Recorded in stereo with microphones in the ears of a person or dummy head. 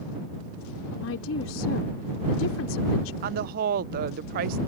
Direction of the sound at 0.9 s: 85° left.